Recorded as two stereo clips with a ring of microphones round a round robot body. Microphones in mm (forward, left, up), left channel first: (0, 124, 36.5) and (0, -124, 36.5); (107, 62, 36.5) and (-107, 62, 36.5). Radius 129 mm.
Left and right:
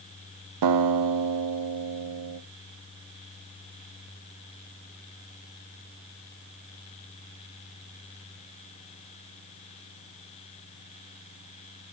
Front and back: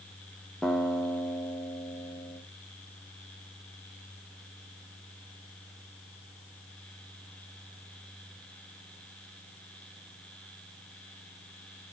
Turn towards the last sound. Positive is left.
turn(degrees=-85)